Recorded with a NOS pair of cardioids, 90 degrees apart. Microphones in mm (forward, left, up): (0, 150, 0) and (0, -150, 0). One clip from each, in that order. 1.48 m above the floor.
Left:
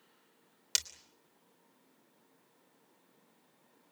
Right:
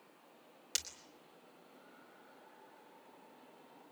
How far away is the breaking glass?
About 3.5 m.